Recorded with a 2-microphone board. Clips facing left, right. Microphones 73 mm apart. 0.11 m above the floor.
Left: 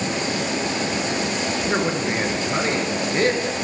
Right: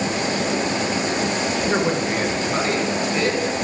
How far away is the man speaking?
About 1.2 m.